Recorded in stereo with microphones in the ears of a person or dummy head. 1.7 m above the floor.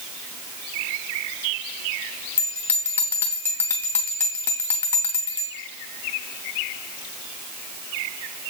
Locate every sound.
2.4 s a bell: 15° left (ahead or behind), 0.5 m